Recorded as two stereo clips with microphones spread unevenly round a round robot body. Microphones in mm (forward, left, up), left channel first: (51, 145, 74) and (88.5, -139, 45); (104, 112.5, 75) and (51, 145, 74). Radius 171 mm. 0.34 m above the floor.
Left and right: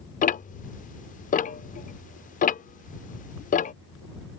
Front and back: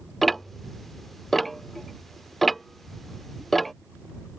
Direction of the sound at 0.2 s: 55° left.